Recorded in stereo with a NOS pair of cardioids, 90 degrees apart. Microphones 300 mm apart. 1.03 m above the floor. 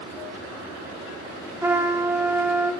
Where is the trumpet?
10° right, 1.1 m.